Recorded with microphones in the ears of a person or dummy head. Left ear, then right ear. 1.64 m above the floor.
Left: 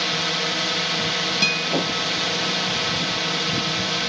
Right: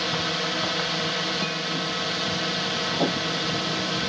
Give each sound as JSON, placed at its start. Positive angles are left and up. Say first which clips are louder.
{"t": 0.0, "sound": "a drone", "louder": "left 3 dB", "side_deg": 15}
{"t": 1.4, "sound": "a guitar", "louder": "left 7 dB", "side_deg": 60}